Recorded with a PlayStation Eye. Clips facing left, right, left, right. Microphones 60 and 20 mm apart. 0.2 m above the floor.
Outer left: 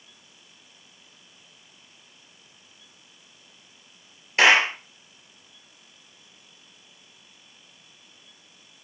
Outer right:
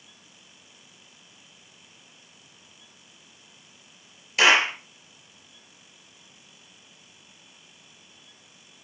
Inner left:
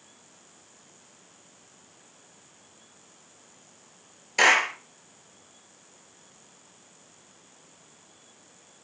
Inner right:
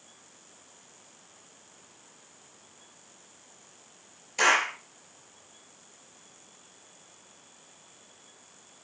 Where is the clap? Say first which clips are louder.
Outer left 2 dB, inner left 3 dB; 35° left (ahead or behind), 3 m.